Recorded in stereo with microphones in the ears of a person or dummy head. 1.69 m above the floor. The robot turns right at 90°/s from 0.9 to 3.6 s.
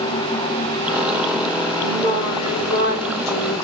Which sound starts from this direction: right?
Singing, at 1.8 s.